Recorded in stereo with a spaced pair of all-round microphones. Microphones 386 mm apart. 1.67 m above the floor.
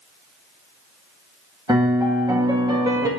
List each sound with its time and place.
1.7 s a piano: 10° right (ahead or behind), 1.6 m